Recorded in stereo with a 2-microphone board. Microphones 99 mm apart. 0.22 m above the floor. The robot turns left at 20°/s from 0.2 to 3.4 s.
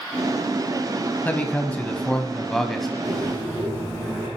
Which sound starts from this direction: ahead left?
A man speaking, at 1.2 s.